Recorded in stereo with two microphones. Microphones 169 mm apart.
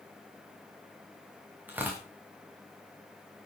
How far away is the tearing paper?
About 4 m.